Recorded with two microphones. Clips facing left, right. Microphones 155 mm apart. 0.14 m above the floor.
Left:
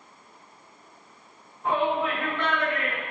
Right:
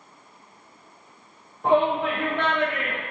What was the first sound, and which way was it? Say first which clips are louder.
A shout: right 5 dB; 70° right (ahead or behind).